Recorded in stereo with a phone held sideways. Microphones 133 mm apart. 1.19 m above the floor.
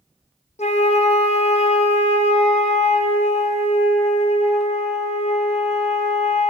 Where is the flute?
55° left (ahead or behind), 1.1 m.